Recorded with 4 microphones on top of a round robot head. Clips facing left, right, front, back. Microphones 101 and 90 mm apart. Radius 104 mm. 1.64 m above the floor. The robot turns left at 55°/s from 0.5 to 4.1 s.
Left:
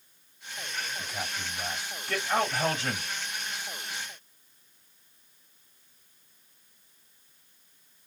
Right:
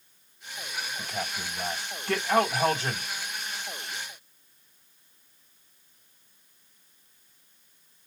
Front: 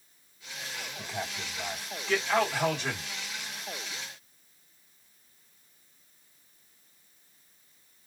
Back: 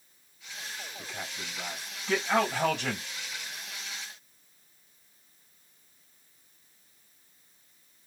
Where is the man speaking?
50° right, 3 m; by 3.1 s 165° right, 3 m.